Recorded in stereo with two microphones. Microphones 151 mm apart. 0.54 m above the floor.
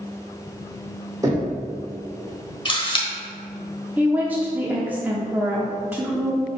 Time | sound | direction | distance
1.2 | knocking | 25° right (ahead or behind) | 1.6 m
2.6 | a camera shutter | 35° left (ahead or behind) | 1.2 m
4.0 | a woman speaking | 10° right (ahead or behind) | 0.9 m